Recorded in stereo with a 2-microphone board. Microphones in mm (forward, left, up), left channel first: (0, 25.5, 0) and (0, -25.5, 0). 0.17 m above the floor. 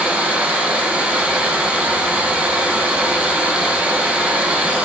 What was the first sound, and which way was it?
Running water, 35° right (ahead or behind).